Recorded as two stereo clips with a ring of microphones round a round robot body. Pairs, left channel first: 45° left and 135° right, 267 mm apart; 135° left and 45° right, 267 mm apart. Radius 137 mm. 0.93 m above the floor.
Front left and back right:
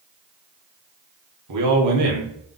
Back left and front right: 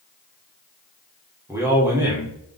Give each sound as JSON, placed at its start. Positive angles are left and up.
{"t": 1.5, "sound": "a man speaking", "azimuth_deg": -125, "distance_m": 2.5}